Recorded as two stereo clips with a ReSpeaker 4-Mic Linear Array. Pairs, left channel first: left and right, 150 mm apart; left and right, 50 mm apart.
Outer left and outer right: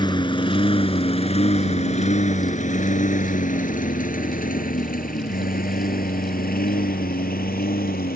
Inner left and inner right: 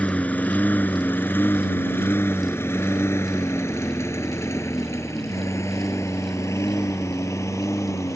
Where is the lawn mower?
30° left (ahead or behind); by 8.2 s 80° left.